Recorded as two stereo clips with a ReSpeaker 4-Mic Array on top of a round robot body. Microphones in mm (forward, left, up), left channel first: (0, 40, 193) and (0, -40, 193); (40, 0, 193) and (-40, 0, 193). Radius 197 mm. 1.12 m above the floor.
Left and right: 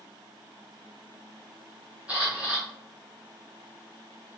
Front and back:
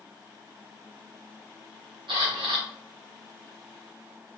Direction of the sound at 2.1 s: 165° right.